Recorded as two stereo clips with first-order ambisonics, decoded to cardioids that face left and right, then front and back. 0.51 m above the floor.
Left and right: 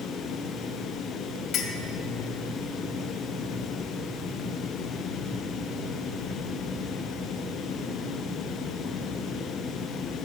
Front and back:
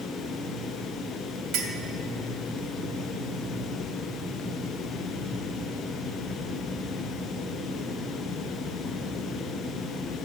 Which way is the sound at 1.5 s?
140° left.